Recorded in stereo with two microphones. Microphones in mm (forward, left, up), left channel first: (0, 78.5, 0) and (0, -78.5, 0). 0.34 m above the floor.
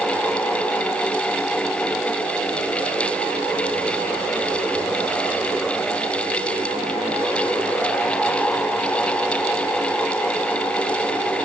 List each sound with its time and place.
Only background noise.